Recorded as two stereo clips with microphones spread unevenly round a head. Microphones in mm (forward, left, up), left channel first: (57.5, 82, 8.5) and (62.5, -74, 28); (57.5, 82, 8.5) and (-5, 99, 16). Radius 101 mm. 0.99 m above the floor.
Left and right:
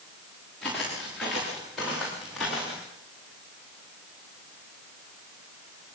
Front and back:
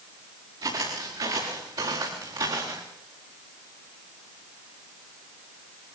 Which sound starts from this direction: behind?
Footsteps, at 0.6 s.